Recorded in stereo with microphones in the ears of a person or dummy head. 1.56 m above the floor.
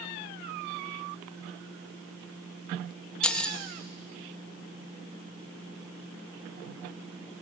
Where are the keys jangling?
10° left (ahead or behind), 0.8 m.